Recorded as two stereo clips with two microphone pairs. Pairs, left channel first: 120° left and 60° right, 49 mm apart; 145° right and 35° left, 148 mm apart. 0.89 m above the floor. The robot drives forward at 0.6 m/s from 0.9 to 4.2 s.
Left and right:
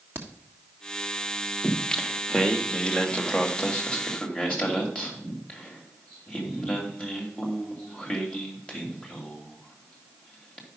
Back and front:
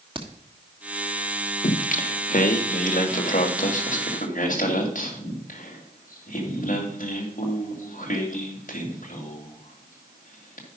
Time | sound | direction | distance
0.1 | a crack | 20° right | 1.3 m
1.6 | singing | 160° right | 0.7 m